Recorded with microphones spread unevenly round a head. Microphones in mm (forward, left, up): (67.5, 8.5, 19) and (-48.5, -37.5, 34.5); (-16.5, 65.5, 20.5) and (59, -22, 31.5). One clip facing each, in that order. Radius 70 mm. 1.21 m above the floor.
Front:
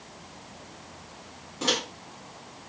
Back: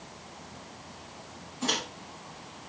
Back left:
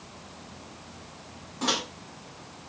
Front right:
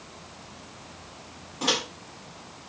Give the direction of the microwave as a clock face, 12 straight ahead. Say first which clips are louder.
Front 3 dB, front right 1 dB; 11 o'clock.